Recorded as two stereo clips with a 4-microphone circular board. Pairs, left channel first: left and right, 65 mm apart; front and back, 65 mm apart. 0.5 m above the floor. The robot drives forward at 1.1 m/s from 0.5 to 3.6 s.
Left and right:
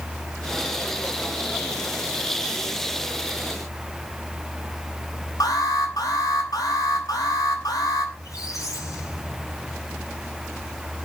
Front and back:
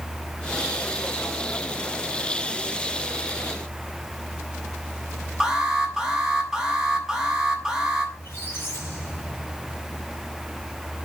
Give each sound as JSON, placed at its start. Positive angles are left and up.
{"t": 5.4, "sound": "an alarm", "azimuth_deg": 100, "distance_m": 6.5}
{"t": 8.2, "sound": "a squeak", "azimuth_deg": 55, "distance_m": 8.5}